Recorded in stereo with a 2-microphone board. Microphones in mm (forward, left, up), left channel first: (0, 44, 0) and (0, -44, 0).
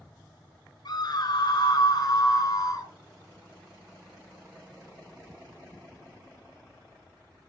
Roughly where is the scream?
Left.